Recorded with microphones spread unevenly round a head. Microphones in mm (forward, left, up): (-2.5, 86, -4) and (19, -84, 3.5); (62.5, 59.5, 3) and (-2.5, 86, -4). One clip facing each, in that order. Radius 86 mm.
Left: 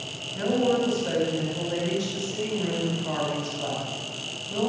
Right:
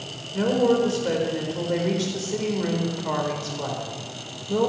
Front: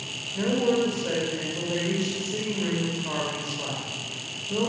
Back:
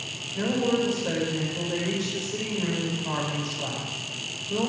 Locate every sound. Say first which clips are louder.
0.3 s a woman speaking: right 3 dB, front 1 dB; 110° right, 4.5 m